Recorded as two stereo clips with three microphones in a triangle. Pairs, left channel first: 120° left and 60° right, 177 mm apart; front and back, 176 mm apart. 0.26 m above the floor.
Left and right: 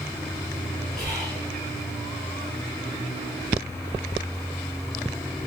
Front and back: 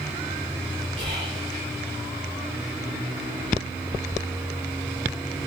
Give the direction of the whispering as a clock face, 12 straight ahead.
5 o'clock.